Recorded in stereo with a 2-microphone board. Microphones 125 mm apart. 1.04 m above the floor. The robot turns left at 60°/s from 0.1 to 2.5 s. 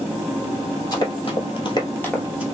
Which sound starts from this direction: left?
Running footsteps, at 0.9 s.